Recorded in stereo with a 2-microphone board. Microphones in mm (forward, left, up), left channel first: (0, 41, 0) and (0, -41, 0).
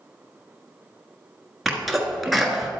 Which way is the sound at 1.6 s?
Centre (ahead or behind).